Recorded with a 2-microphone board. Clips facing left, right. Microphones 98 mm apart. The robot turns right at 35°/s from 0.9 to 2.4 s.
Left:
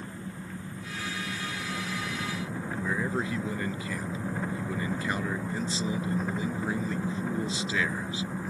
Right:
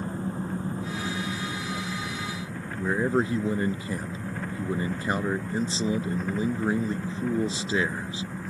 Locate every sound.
0.0 s an engine running: 40° right; by 8.5 s 10° left
2.8 s a man speaking: 35° right (ahead or behind)